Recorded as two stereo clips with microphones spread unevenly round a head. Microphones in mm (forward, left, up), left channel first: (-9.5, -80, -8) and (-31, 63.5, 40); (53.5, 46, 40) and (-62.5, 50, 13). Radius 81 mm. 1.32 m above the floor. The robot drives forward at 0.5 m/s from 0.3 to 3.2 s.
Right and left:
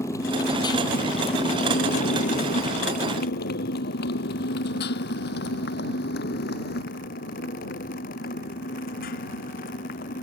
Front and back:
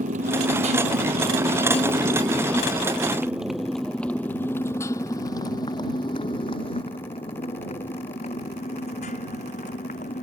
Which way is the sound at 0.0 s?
150° right.